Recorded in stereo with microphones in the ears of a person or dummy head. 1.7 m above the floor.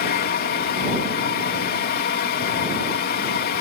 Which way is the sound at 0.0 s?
50° left (ahead or behind).